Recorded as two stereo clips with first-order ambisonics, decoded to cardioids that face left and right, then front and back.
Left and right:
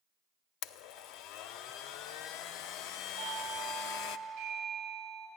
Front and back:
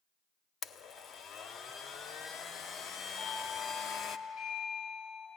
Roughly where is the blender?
Ahead left.